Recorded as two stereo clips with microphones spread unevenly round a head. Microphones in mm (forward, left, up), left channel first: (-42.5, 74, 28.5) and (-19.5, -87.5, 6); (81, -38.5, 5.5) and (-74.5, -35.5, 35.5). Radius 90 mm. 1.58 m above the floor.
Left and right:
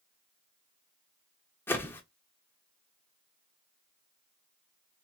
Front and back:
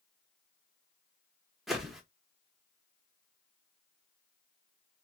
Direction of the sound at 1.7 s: 120° left.